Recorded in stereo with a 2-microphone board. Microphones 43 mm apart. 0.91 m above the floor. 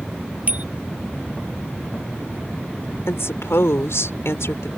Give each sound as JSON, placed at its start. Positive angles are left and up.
{"t": 0.5, "sound": "a bicycle bell", "side_deg": -35}
{"t": 3.1, "sound": "a woman speaking", "side_deg": 80}